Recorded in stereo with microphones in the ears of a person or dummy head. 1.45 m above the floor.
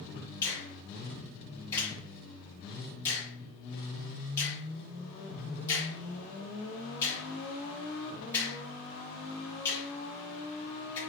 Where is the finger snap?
15° left (ahead or behind), 2.5 m.